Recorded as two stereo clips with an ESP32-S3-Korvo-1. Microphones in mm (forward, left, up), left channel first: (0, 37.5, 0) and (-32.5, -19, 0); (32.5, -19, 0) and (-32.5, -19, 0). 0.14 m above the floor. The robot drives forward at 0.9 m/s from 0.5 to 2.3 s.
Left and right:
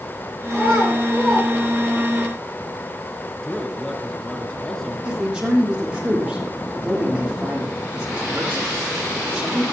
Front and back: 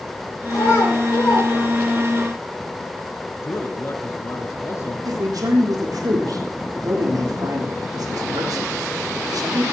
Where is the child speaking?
25° right, 8.5 m; by 2.2 s 30° right, 7.5 m.